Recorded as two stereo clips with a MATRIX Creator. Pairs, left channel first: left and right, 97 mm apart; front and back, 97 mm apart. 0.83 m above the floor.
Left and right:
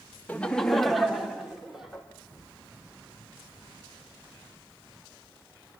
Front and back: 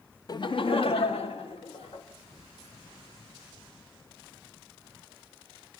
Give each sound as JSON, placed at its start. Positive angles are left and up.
{"t": 0.3, "sound": "laughter", "azimuth_deg": 20, "distance_m": 0.7}